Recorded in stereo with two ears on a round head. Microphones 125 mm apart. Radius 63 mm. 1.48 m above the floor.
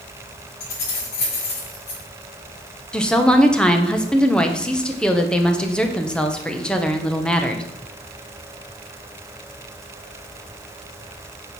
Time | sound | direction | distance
0.6 | keys jangling | 80° left | 6 m
2.9 | a woman speaking | 5° left (ahead or behind) | 1.2 m